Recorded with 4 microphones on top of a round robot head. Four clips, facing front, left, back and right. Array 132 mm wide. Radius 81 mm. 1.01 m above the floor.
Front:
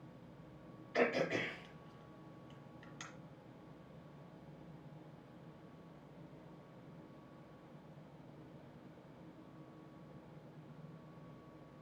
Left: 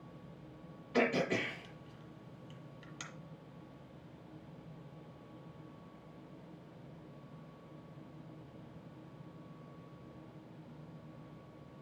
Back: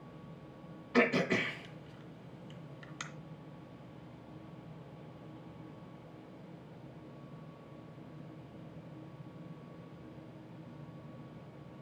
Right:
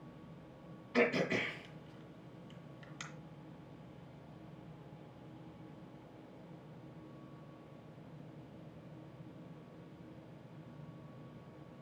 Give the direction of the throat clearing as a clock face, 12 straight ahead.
6 o'clock.